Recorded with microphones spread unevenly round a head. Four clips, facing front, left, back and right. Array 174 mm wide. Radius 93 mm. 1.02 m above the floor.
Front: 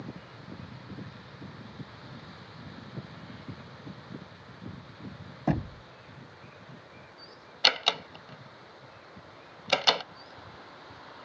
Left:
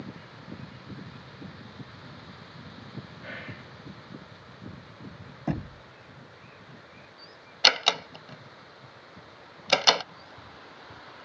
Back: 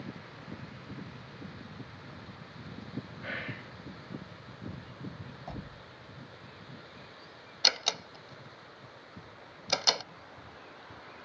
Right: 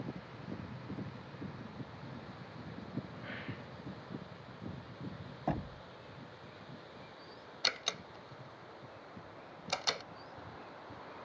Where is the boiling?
No boiling in this recording.